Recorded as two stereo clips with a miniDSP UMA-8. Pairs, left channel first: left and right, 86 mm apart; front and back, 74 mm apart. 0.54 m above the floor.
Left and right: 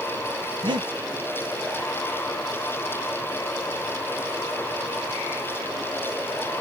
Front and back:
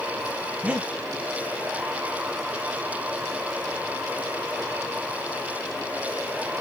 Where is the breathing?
105° right, 0.6 m.